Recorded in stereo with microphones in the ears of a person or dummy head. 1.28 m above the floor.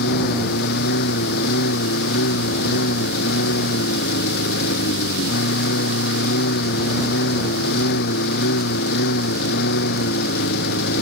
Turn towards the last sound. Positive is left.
turn(degrees=60)  # may be behind; listen again after turning